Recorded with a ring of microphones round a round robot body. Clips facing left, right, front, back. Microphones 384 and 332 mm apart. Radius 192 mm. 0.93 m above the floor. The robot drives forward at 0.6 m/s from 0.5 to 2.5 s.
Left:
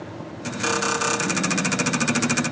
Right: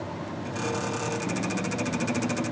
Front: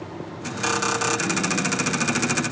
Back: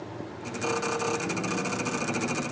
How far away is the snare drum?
No snare drum in this recording.